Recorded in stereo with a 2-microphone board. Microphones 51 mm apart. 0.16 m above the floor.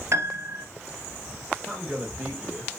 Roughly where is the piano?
Right.